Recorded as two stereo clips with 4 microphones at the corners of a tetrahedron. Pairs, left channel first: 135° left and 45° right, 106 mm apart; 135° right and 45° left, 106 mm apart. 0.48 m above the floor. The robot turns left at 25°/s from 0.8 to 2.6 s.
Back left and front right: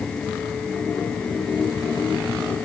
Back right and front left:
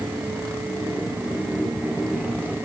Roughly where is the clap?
I don't hear a clap.